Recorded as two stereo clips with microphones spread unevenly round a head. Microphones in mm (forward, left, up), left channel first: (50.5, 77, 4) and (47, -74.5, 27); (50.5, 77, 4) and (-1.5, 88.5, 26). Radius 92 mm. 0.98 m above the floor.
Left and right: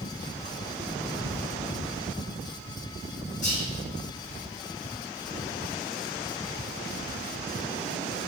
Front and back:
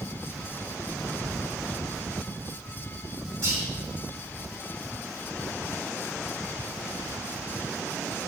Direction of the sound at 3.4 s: 140° left.